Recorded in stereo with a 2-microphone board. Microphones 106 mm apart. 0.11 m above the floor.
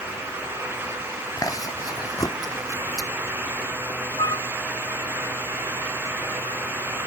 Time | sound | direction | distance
1.4 | chewing | 35° left (ahead or behind) | ?
4.2 | a flute | 40° left (ahead or behind) | ?